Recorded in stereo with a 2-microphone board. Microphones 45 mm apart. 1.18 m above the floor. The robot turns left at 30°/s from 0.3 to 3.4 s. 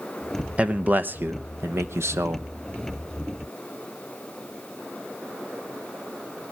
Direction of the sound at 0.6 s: 30° right.